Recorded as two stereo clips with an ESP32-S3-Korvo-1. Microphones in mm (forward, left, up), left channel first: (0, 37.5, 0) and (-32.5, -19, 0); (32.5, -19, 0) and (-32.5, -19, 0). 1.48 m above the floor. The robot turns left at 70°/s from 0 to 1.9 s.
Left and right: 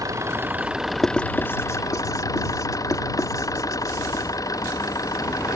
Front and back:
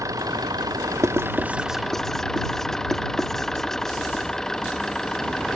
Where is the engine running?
145° right; by 5.5 s 80° left.